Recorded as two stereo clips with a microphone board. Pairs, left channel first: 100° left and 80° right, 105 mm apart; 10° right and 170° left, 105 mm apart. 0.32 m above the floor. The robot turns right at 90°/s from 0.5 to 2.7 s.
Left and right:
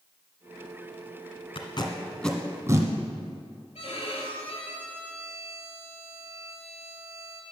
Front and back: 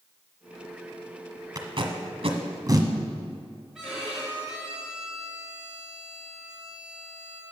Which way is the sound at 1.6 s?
125° left.